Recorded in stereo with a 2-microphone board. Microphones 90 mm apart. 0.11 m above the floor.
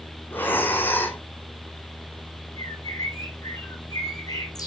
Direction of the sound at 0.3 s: 20° left (ahead or behind).